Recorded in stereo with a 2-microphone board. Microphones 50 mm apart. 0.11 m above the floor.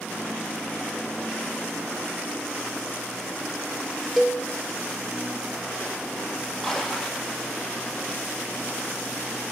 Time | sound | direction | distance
4.2 | a cowbell | centre (ahead or behind) | 0.9 m
6.6 | a splash | 10° left (ahead or behind) | 1.3 m